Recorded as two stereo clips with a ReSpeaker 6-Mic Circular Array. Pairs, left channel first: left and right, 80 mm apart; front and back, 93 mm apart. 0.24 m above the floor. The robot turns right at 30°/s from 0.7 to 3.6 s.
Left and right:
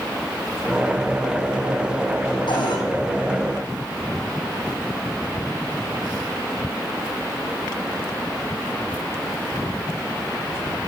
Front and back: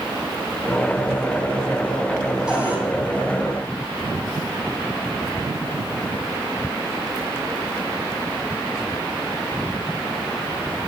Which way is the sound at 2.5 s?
95° left.